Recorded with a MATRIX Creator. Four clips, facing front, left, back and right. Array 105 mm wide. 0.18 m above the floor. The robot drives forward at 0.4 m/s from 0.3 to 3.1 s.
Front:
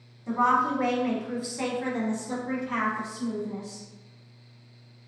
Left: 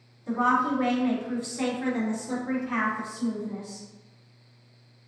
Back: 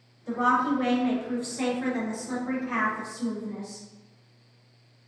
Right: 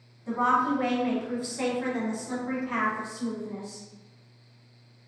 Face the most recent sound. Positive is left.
turn(degrees=-170)